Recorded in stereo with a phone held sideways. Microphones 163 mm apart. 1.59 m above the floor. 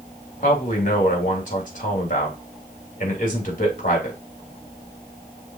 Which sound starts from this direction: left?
A man speaking, at 0.4 s.